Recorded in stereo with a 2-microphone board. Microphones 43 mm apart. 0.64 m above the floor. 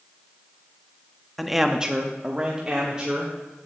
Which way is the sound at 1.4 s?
Centre (ahead or behind).